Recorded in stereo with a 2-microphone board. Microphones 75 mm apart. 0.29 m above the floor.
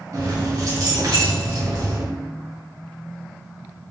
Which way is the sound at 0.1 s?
50° right (ahead or behind).